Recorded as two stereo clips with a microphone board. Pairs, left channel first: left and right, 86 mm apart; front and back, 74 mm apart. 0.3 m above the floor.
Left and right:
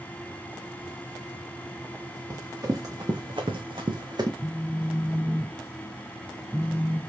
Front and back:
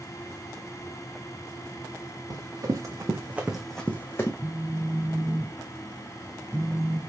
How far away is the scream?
No scream in this recording.